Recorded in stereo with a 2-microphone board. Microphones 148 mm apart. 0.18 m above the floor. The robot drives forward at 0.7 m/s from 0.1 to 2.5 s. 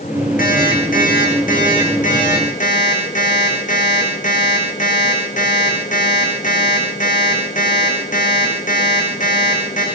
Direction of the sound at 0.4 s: 70° left (ahead or behind).